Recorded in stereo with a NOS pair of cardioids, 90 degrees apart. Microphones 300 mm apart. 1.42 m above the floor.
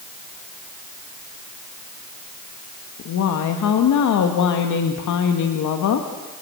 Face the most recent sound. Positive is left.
turn(degrees=70)